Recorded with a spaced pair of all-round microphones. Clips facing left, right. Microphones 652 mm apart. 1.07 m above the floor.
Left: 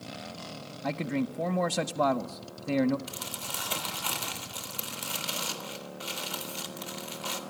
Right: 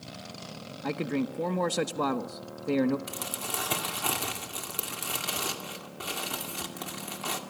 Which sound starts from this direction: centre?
A man speaking, at 0.8 s.